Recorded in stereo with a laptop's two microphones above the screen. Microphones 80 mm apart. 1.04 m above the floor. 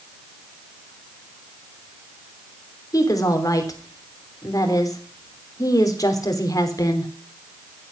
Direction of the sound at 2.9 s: 45° left (ahead or behind).